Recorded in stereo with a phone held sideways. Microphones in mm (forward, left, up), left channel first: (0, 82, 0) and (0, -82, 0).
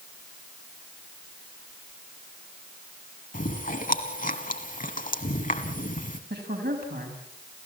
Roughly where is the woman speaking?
Right.